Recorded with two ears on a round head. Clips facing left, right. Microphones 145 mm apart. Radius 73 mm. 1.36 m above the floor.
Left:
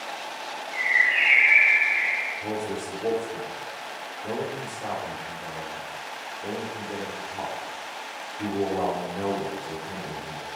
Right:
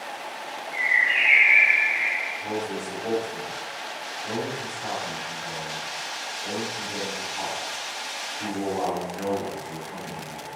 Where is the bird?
35° right (ahead or behind), 4 m.